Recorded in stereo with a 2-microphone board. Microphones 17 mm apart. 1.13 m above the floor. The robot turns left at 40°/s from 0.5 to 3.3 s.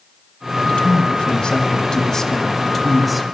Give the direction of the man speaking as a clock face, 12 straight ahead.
9 o'clock.